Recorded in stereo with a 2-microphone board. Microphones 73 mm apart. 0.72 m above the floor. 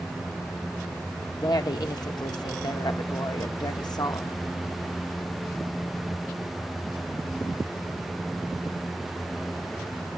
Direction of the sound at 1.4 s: 60° left (ahead or behind).